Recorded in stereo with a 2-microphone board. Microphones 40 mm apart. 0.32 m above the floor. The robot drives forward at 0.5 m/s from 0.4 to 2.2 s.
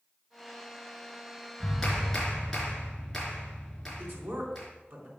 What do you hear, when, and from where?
1.6 s a clap: 5° left (ahead or behind), 3 m
4.0 s a man speaking: 60° right (ahead or behind), 3.5 m